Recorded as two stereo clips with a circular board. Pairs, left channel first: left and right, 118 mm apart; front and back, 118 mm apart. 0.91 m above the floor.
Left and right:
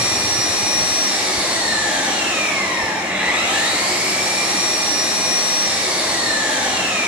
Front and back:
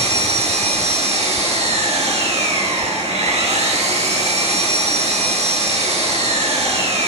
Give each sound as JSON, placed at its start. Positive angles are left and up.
{"t": 0.0, "sound": "an engine running", "azimuth_deg": -170, "distance_m": 5.5}